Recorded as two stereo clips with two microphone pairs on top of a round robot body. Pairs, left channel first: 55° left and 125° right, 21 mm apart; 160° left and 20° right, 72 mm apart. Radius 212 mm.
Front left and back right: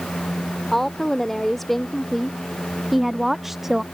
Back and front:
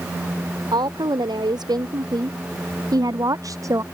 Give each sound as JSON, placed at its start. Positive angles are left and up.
{"t": 0.7, "sound": "a woman speaking", "azimuth_deg": -25}